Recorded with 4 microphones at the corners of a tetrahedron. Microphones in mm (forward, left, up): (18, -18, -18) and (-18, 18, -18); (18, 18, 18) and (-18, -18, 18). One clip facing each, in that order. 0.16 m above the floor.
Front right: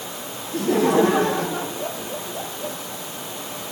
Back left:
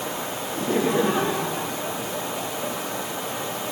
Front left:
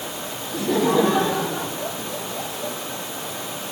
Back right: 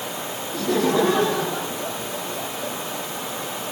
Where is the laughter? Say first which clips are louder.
Front right 5 dB, front left 1 dB; 35° right, 8.5 m; by 2.8 s 25° right, 8.5 m.